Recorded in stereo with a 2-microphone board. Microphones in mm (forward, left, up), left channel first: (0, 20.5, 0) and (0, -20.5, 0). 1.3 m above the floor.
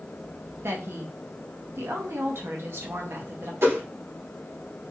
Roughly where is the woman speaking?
Right.